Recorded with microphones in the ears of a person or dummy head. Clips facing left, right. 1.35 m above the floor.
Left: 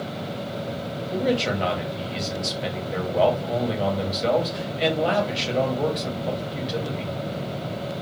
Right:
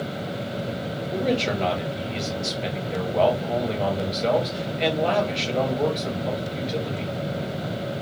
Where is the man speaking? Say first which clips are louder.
Left 1 dB; 10° left (ahead or behind), 1.6 m.